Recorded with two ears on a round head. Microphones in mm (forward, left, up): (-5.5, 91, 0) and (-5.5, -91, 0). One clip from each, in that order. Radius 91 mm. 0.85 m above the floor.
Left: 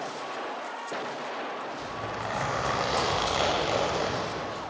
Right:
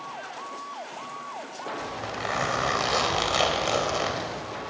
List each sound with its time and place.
1.8 s a zipper: 40° right (ahead or behind), 4 m